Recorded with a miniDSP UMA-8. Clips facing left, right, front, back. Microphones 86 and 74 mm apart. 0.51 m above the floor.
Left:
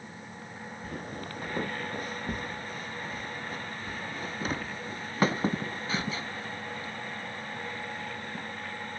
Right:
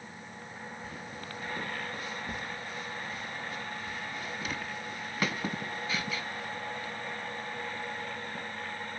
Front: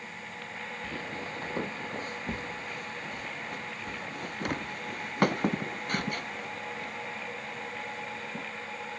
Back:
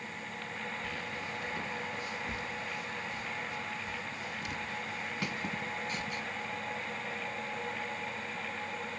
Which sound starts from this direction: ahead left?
Footsteps, at 0.8 s.